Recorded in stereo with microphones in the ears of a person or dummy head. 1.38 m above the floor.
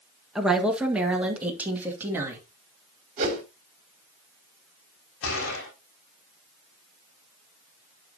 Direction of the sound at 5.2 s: 80° left.